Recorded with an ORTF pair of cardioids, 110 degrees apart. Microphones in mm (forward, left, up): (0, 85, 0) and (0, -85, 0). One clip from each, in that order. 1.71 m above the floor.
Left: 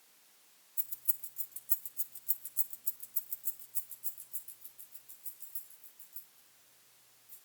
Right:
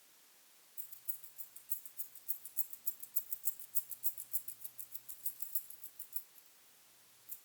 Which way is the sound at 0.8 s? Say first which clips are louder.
Left 10 dB; 60° left.